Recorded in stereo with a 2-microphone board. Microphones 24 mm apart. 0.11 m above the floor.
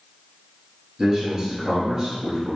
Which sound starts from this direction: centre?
A man speaking, at 1.0 s.